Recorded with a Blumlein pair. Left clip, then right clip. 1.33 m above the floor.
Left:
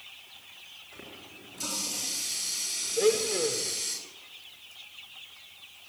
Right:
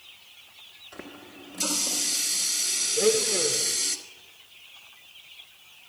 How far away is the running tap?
About 3 m.